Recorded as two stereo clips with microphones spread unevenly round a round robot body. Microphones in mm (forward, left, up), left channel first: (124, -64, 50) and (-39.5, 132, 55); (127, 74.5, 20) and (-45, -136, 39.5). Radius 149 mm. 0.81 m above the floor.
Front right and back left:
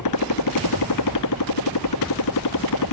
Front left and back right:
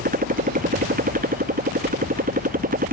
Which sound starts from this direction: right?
A motorcycle, at 0.0 s.